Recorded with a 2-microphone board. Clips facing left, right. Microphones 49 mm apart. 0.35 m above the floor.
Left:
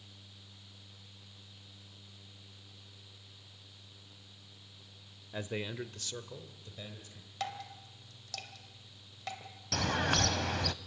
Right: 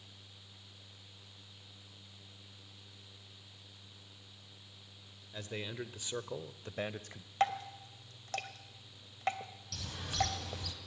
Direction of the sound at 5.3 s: 25° left (ahead or behind).